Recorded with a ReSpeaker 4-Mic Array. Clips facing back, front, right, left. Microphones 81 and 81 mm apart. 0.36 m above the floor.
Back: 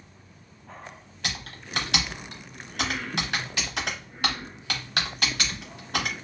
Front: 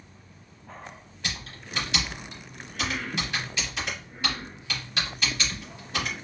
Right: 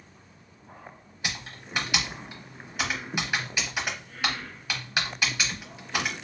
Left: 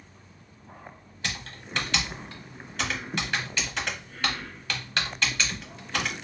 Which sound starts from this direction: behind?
Typing on a keyboard, at 1.2 s.